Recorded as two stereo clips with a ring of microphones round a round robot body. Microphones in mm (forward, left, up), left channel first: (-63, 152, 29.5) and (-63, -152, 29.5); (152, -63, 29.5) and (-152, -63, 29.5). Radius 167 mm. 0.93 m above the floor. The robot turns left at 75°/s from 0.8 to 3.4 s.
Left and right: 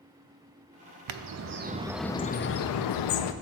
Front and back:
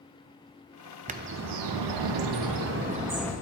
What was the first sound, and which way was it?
A bird, 110° right.